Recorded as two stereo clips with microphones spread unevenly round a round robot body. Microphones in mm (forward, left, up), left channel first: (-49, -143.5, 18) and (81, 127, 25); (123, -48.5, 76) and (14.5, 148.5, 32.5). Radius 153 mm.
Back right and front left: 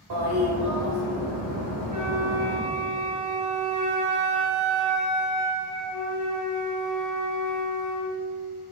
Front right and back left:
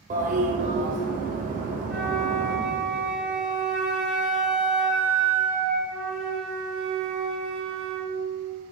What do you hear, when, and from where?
0.1 s a toilet flushing: 70° left, 2.5 m
1.9 s a flute: 30° left, 2 m